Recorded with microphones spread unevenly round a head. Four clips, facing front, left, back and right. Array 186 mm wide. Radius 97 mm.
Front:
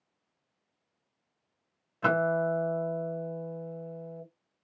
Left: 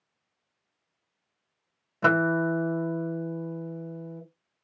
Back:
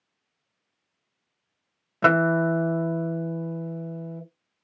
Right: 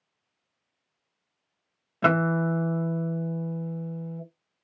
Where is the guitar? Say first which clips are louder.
Even, back 6 dB; 165° right, 1.3 m.